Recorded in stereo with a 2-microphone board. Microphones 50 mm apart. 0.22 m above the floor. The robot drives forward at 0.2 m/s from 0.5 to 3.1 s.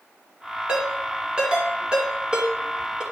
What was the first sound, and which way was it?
A ringtone, 20° right (ahead or behind).